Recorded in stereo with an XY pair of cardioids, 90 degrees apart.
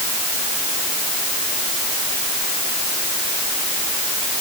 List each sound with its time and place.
Only background noise.